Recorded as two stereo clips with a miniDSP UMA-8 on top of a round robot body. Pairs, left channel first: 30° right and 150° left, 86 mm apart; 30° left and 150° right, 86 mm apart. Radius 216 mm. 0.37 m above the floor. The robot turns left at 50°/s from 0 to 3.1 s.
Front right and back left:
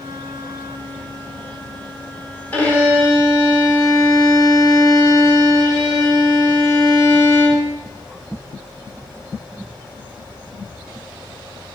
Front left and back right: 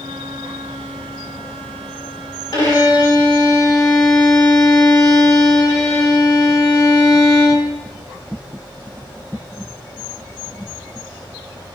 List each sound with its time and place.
2.5 s a violin: 35° left, 2 m; by 7.8 s 5° left, 2 m